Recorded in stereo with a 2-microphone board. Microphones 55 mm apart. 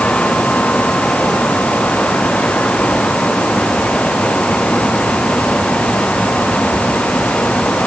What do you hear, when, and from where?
Only background noise.